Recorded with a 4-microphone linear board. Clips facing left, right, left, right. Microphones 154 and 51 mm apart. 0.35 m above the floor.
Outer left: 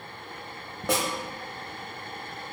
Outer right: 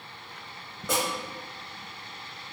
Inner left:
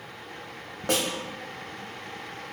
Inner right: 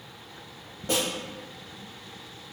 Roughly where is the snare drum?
Left.